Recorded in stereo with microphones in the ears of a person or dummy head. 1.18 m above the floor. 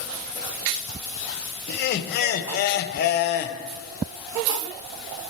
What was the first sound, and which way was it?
Laughter, 55° left (ahead or behind).